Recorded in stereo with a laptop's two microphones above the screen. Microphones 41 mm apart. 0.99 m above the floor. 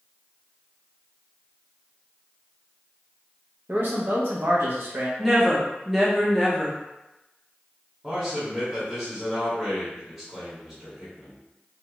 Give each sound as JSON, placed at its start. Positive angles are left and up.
{"t": 3.7, "sound": "a man speaking", "side_deg": -55, "distance_m": 0.6}
{"t": 5.2, "sound": "a woman speaking", "side_deg": -5, "distance_m": 0.6}
{"t": 8.0, "sound": "a man speaking", "side_deg": -5, "distance_m": 0.9}